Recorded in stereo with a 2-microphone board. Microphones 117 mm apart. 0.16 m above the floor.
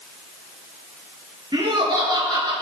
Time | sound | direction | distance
1.5 | laughter | 40° right (ahead or behind) | 3 m